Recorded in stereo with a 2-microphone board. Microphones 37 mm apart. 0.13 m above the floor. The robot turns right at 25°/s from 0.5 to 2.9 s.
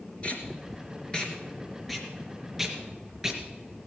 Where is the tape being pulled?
30° left (ahead or behind), 2.5 m; by 3.4 s 15° right (ahead or behind), 2.5 m.